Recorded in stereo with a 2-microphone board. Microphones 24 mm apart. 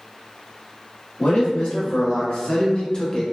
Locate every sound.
1.2 s a man speaking: 70° left (ahead or behind), 1.8 m; by 3.2 s 15° left (ahead or behind), 0.6 m